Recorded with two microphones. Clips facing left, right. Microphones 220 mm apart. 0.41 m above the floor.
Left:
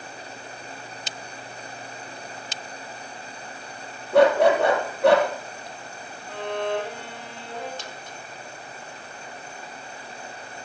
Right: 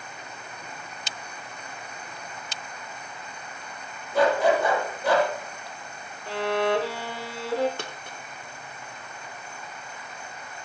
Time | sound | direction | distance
4.1 | a dog barking | 65° left (ahead or behind) | 3.5 m
6.3 | a violin | 80° right | 2 m
7.8 | a dropped coin | 60° right (ahead or behind) | 1.6 m